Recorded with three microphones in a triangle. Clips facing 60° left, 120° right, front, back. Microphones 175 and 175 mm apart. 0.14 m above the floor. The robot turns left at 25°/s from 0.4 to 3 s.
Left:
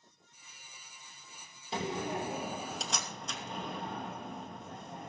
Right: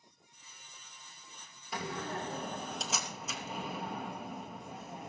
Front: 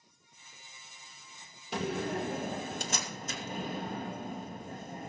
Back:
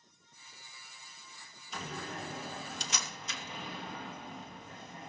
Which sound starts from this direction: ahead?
A door slam, at 1.7 s.